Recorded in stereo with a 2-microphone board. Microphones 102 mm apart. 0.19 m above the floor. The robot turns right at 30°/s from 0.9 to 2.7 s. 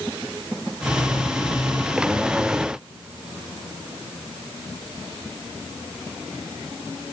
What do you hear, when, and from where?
Only background noise.